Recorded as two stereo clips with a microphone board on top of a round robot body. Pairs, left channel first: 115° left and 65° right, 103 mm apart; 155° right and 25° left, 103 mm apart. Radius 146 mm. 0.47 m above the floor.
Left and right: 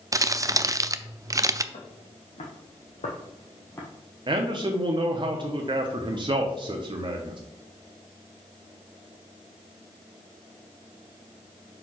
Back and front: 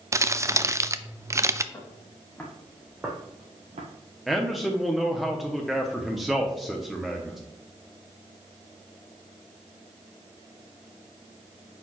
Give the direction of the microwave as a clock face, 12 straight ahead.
I don't hear a microwave.